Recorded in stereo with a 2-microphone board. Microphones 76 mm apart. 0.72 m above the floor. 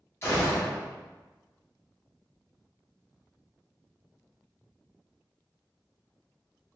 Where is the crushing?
No crushing in this recording.